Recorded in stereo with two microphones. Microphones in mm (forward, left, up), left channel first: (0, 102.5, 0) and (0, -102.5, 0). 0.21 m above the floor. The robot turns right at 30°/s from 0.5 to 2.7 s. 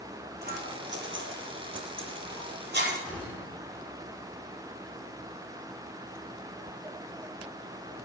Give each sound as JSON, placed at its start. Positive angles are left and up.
{"t": 0.4, "sound": "scissors", "side_deg": -55, "distance_m": 5.5}
{"t": 3.0, "sound": "a gunshot", "side_deg": 5, "distance_m": 6.5}